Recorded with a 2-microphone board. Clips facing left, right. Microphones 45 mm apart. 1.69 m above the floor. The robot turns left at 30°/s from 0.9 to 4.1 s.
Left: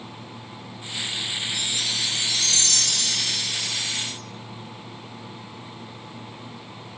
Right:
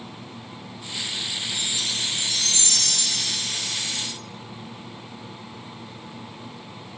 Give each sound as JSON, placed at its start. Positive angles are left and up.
{"t": 1.5, "sound": "a chime", "azimuth_deg": -140, "distance_m": 1.8}